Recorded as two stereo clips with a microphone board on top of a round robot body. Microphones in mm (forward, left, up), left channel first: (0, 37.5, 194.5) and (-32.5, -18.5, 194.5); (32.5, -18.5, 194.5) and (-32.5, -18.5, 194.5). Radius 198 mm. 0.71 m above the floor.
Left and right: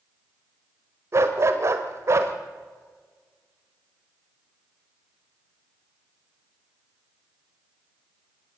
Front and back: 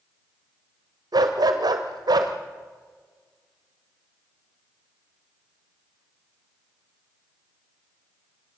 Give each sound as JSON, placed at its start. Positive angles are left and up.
{"t": 1.1, "sound": "a dog barking", "azimuth_deg": -165, "distance_m": 1.3}